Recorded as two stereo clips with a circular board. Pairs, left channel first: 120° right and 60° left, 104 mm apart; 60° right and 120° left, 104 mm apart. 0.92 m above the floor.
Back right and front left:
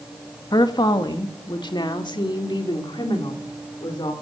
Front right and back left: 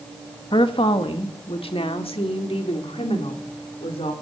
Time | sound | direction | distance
0.5 | a woman speaking | 80° right | 1.3 m